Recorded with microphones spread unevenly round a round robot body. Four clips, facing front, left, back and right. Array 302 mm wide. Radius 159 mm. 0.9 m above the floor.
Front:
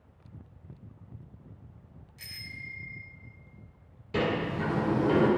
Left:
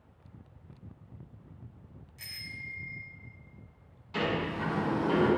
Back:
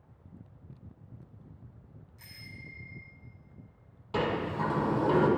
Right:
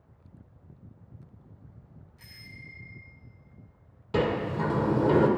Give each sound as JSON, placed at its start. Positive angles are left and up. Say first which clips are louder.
{"t": 2.2, "sound": "a bicycle bell", "louder": "left 5 dB, front 4 dB", "azimuth_deg": 40, "distance_m": 3.0}
{"t": 4.1, "sound": "a sliding door", "louder": "right 5 dB, front 1 dB", "azimuth_deg": -85, "distance_m": 2.0}